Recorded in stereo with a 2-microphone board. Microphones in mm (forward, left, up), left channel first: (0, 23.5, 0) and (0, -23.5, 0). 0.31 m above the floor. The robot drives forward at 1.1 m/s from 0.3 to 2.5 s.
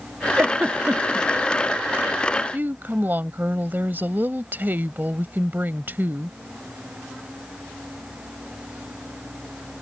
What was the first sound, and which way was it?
A giggle, 40° right (ahead or behind).